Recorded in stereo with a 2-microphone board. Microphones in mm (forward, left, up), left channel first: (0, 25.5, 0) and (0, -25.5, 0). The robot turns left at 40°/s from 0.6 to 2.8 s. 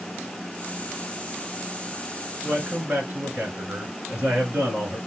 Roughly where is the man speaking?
Right.